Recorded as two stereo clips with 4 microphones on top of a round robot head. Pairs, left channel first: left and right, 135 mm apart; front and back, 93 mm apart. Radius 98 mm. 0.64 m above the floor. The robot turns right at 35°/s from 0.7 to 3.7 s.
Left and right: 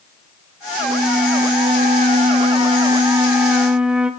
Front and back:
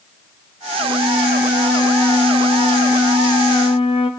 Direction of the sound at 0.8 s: 110° right.